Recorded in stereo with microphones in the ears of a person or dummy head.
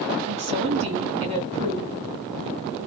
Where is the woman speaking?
35° right (ahead or behind), 1.7 m.